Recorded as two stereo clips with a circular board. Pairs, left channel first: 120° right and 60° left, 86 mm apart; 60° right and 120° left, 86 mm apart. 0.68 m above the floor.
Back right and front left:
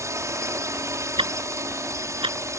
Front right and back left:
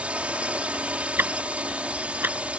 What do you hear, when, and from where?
0.0 s a drone: 55° left
1.2 s ticking: 55° left